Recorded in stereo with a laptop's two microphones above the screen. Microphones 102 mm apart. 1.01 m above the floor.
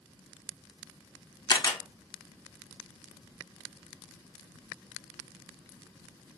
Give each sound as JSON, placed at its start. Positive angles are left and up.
{"t": 1.5, "sound": "a camera shutter", "side_deg": 45, "distance_m": 0.7}